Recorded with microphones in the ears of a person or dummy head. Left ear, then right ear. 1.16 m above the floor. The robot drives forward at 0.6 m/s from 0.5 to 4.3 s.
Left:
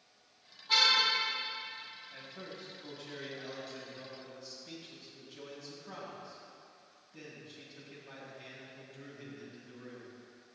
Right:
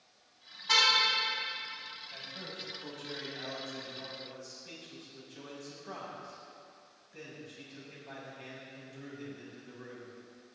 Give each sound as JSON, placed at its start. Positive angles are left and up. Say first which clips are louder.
{"t": 0.7, "sound": "a car horn", "louder": "right 1 dB", "side_deg": -75, "distance_m": 5.0}
{"t": 2.1, "sound": "a man speaking", "louder": "right 4 dB", "side_deg": -65, "distance_m": 6.5}